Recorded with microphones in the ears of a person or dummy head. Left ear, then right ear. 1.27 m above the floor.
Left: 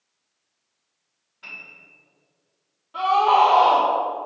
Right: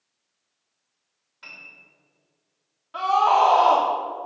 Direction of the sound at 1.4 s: 50° right (ahead or behind).